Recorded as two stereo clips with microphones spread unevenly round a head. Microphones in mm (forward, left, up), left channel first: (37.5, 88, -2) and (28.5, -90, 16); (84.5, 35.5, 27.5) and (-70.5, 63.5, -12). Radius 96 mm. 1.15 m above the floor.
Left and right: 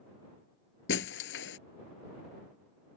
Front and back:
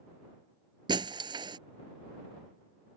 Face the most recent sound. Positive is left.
turn(degrees=100)